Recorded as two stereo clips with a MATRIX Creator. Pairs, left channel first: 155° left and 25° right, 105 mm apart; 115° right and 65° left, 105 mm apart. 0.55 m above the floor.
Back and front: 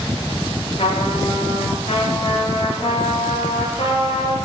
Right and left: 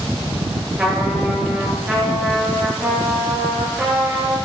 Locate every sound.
0.8 s a trumpet: 150° left, 8.5 m